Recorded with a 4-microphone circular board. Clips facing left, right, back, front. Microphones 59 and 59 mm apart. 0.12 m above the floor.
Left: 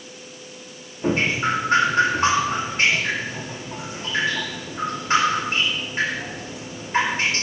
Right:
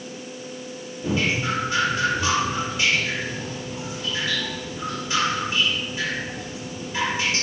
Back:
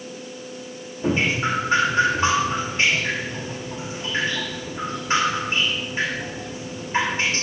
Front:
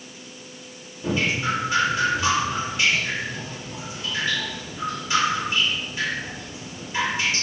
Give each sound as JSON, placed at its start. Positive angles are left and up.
{"t": 1.0, "sound": "dripping", "azimuth_deg": 130, "distance_m": 7.5}